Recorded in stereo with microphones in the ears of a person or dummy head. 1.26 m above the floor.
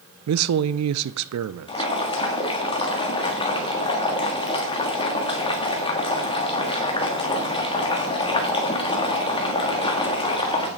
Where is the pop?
No pop in this recording.